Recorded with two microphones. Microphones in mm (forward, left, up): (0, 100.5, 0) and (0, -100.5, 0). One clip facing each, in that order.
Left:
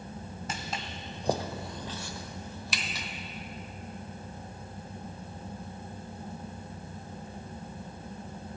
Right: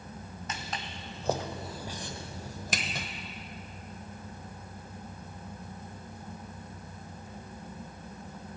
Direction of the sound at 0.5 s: 30° left (ahead or behind).